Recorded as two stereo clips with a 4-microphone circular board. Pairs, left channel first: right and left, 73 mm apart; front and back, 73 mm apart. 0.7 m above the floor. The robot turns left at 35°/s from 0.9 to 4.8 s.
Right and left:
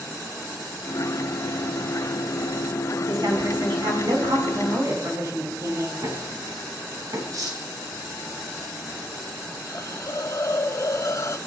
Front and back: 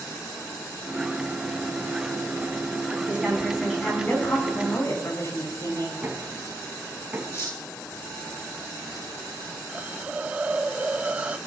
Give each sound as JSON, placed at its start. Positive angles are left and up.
{"t": 3.1, "sound": "a woman speaking", "azimuth_deg": 110, "distance_m": 7.5}
{"t": 6.0, "sound": "knocking", "azimuth_deg": 115, "distance_m": 5.0}
{"t": 7.3, "sound": "cutlery clinking", "azimuth_deg": 55, "distance_m": 3.0}
{"t": 9.7, "sound": "a hiss", "azimuth_deg": -115, "distance_m": 0.7}